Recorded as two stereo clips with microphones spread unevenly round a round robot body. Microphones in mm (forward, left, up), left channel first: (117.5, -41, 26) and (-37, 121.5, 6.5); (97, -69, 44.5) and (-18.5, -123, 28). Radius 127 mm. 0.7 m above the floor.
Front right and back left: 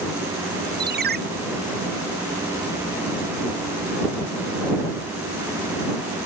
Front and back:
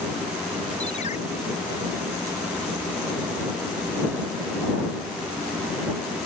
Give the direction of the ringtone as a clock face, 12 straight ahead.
9 o'clock.